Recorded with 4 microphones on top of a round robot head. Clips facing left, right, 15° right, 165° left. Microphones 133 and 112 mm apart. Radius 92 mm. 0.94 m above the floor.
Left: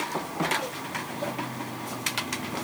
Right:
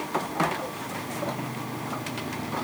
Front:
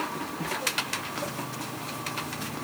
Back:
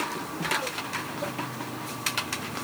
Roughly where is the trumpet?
No trumpet in this recording.